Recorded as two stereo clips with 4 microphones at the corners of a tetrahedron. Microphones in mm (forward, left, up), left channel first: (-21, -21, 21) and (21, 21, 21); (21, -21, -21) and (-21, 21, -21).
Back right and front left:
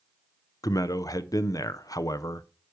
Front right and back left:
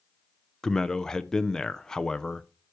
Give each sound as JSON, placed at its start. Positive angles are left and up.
{"t": 0.6, "sound": "a man speaking", "azimuth_deg": -125, "distance_m": 0.7}